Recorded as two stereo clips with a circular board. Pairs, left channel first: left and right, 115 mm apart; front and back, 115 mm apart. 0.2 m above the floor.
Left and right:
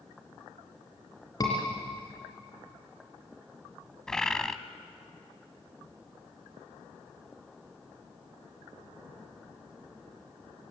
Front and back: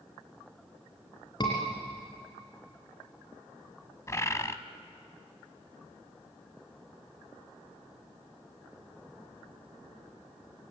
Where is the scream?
40° left, 3 m.